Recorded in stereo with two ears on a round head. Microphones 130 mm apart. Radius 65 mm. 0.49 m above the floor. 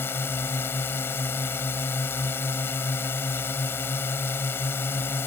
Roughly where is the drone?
Centre.